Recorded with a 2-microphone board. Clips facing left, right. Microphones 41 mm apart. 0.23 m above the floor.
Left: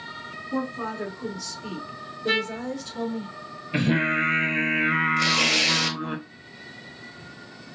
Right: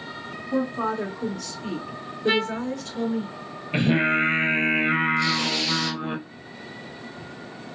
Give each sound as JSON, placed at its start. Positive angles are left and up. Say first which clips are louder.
{"t": 0.5, "sound": "a woman speaking", "louder": "right 4 dB", "side_deg": -40, "distance_m": 2.0}
{"t": 2.3, "sound": "a trumpet", "louder": "right 2 dB", "side_deg": -15, "distance_m": 0.5}
{"t": 3.7, "sound": "singing", "louder": "right 2 dB", "side_deg": -25, "distance_m": 1.2}
{"t": 5.2, "sound": "tearing paper", "louder": "left 2 dB", "side_deg": 80, "distance_m": 0.9}